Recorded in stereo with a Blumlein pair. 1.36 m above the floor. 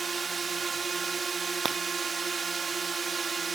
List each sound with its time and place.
0.0 s a drone: 20° right
1.6 s breaking glass: 15° right